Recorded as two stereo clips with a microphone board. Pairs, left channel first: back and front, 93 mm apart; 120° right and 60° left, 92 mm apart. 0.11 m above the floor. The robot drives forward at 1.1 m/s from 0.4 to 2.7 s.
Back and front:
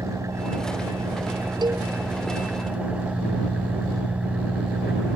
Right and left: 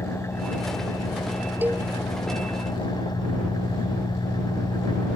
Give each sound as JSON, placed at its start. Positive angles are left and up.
{"t": 0.0, "sound": "an engine running", "azimuth_deg": -60}
{"t": 1.6, "sound": "a cowbell", "azimuth_deg": -5}